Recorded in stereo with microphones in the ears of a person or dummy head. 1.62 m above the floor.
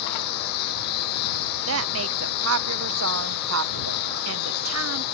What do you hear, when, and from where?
0.0 s a lawn mower: 50° left (ahead or behind)
1.7 s a woman speaking: 80° right